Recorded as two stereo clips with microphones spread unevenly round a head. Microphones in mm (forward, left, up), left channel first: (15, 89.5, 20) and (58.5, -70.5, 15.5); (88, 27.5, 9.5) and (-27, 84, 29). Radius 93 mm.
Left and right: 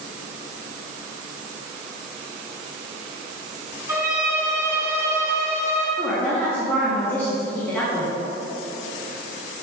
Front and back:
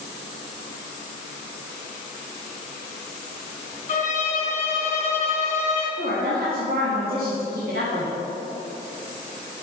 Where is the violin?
Straight ahead, 2 m.